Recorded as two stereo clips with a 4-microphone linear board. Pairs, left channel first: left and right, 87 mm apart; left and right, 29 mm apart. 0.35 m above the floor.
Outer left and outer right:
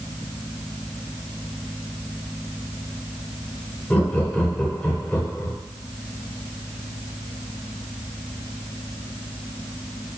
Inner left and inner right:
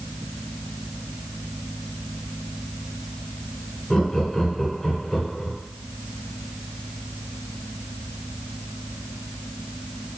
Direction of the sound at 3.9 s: 20° left (ahead or behind).